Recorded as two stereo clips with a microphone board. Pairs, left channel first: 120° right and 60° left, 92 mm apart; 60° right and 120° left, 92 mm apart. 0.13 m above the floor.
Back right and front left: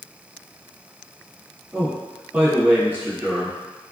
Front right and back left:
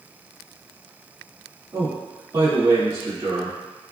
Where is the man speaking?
120° left, 1.7 m.